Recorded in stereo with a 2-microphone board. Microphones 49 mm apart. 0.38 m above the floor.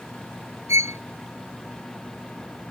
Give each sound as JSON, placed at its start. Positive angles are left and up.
{"t": 0.7, "sound": "a violin", "side_deg": -80}